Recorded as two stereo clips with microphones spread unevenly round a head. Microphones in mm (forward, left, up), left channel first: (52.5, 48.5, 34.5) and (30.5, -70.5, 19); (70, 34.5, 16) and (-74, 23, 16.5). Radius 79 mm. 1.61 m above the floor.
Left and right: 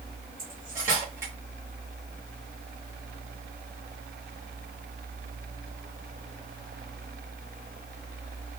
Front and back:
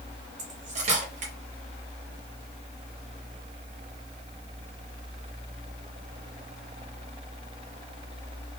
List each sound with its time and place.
0.4 s cutlery clinking: 175° right, 1.1 m